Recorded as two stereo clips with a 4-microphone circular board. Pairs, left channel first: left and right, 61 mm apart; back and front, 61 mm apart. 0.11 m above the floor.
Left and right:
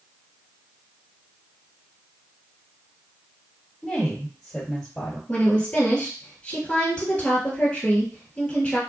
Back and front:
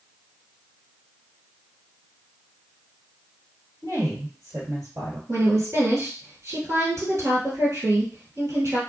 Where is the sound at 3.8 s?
20° left, 1.7 m.